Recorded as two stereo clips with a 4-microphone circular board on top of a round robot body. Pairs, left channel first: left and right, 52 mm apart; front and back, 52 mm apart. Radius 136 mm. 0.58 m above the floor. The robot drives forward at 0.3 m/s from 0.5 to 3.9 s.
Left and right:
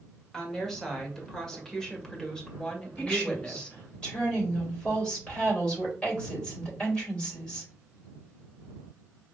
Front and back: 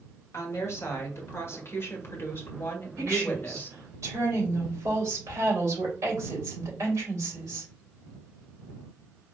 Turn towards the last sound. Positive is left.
turn(degrees=160)